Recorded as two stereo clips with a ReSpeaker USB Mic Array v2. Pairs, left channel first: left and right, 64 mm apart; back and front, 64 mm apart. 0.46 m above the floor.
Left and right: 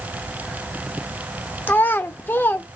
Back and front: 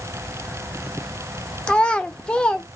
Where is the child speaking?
120° left, 0.6 m.